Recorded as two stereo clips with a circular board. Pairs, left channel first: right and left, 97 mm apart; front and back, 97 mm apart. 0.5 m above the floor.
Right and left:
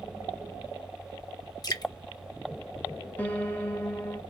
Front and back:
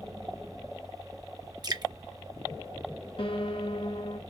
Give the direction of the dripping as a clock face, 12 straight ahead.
5 o'clock.